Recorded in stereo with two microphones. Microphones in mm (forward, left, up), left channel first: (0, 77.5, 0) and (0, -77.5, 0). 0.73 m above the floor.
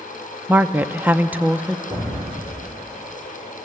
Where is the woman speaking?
10° right (ahead or behind), 0.6 m.